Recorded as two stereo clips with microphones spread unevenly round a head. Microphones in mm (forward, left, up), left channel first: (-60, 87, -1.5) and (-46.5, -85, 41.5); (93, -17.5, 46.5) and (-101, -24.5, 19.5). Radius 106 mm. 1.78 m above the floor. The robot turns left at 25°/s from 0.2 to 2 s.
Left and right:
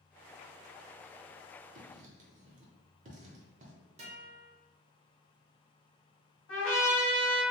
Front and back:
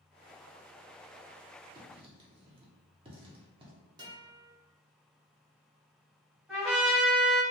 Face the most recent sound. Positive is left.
turn(degrees=85)